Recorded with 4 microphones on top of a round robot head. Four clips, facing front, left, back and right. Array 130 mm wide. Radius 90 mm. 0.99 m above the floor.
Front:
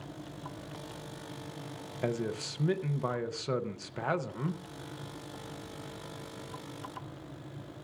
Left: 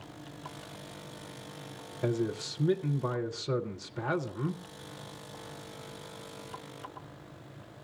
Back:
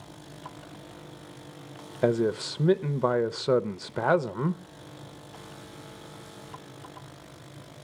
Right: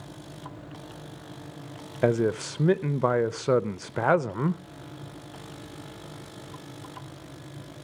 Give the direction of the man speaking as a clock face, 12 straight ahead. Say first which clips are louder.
Right 8 dB, back 9 dB; 4 o'clock.